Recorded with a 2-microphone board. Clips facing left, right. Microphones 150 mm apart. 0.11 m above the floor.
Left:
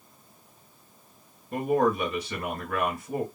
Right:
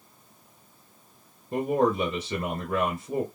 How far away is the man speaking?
About 1.3 m.